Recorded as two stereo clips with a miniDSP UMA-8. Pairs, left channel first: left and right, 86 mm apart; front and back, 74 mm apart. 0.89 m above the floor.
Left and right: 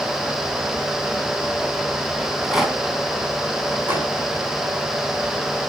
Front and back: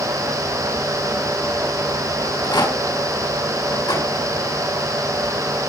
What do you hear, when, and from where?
2.2 s a rattle: 5° right, 4 m
3.9 s a microwave: 25° right, 8 m